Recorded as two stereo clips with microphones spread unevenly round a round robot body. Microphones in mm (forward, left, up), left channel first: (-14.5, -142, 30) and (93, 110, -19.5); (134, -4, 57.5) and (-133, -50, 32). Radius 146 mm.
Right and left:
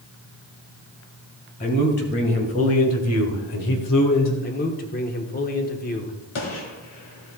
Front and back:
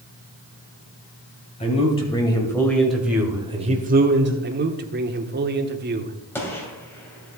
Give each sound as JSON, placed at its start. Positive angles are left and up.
{"t": 1.6, "sound": "a man speaking", "azimuth_deg": -55, "distance_m": 3.0}
{"t": 4.4, "sound": "a man speaking", "azimuth_deg": -170, "distance_m": 1.1}
{"t": 6.3, "sound": "a gunshot", "azimuth_deg": -75, "distance_m": 2.5}